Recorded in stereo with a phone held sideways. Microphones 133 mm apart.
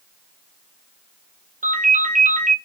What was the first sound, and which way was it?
A ringtone, 75° right (ahead or behind).